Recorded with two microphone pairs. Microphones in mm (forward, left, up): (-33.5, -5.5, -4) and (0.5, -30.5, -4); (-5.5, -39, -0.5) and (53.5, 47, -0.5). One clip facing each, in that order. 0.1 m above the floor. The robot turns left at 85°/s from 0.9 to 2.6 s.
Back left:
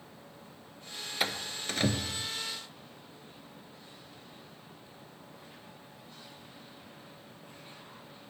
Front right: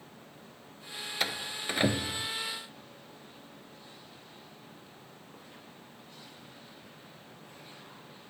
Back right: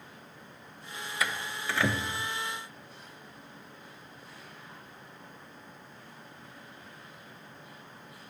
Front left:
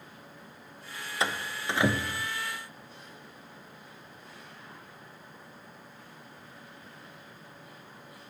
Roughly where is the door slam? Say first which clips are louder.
Even, front left 2 dB; ahead left.